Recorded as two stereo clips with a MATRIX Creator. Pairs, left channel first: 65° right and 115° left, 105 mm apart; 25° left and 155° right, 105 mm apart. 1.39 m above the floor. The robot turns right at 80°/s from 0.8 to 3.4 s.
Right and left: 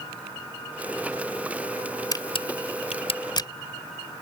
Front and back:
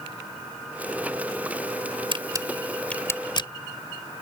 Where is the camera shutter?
120° right; by 3.5 s 20° right.